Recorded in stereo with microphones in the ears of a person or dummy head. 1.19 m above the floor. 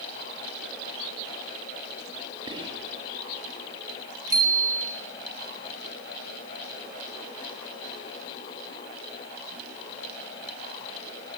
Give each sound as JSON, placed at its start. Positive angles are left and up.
{"t": 2.5, "sound": "whispering", "side_deg": -25, "distance_m": 1.5}
{"t": 4.3, "sound": "a bicycle bell", "side_deg": -20, "distance_m": 2.0}